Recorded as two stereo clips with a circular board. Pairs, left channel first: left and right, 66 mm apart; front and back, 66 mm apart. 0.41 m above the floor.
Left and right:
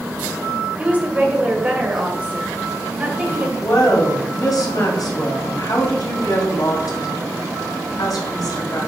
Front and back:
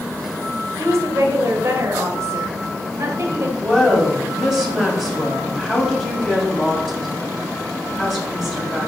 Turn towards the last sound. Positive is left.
turn(degrees=90)